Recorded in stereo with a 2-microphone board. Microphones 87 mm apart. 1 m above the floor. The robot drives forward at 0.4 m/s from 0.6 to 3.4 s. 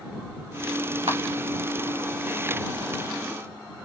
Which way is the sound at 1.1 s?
80° right.